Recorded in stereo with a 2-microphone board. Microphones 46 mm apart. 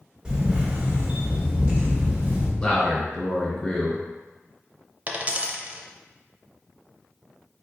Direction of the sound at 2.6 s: 25° left (ahead or behind).